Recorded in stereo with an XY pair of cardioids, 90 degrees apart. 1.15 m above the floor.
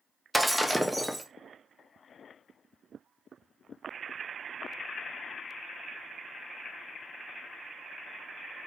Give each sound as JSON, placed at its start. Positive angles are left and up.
{"t": 0.3, "sound": "breaking glass", "azimuth_deg": -5, "distance_m": 0.7}